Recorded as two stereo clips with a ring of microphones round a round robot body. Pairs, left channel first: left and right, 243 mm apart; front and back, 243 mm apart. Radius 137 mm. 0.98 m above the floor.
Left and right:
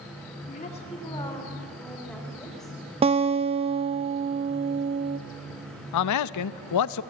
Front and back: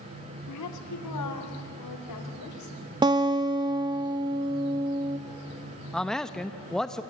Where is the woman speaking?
30° left, 2 m; by 2.9 s straight ahead, 4.5 m.